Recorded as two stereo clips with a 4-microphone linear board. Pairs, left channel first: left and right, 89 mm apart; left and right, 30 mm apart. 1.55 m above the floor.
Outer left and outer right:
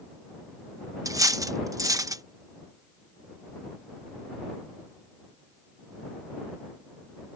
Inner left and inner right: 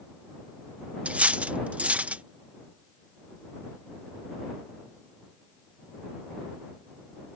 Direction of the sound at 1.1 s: 35° right (ahead or behind).